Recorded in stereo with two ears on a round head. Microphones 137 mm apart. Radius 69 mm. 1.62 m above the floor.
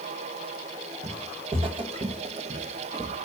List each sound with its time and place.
1.0 s footsteps: 40° right (ahead or behind), 3 m; by 3.2 s 30° right (ahead or behind), 1.8 m